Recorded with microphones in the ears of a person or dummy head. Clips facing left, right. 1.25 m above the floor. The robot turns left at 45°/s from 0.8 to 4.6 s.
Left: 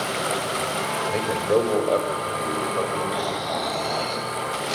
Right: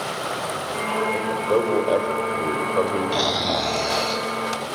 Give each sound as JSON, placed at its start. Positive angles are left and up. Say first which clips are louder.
{"t": 1.1, "sound": "a man speaking", "louder": "left 1 dB", "azimuth_deg": 20, "distance_m": 4.5}
{"t": 3.1, "sound": "snoring", "louder": "right 3 dB", "azimuth_deg": -110, "distance_m": 1.7}